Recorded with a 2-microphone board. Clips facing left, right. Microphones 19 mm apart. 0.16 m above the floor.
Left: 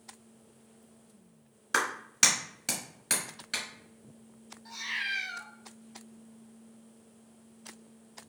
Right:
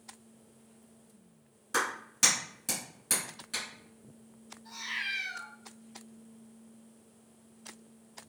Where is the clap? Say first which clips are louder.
Left 3 dB; 35° left (ahead or behind), 1.3 m.